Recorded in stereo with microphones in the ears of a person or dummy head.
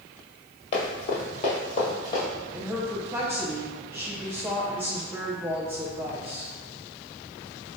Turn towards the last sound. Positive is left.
turn(degrees=-10)  # may be behind; listen again after turning